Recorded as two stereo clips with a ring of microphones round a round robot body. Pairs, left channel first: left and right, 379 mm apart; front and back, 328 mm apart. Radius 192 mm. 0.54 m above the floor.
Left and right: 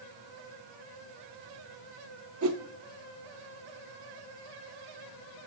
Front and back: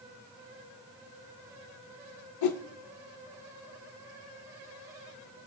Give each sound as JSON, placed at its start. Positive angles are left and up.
{"t": 2.4, "sound": "a whoosh", "azimuth_deg": -35, "distance_m": 0.5}